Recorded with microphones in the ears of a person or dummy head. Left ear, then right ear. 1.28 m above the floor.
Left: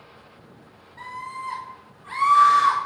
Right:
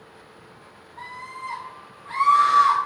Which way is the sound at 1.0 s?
5° right (ahead or behind).